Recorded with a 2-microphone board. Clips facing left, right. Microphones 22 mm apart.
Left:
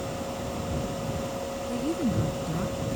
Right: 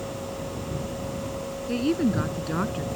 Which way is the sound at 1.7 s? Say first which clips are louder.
Right 5 dB; 45° right (ahead or behind).